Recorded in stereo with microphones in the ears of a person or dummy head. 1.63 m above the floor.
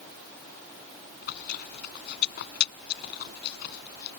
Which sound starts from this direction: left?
Chewing, at 1.2 s.